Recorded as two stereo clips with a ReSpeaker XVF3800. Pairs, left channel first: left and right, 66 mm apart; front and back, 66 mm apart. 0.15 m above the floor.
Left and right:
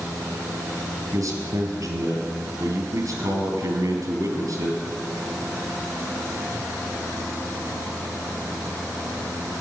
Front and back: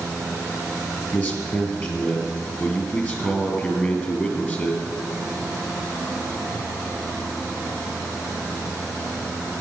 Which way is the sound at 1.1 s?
60° right.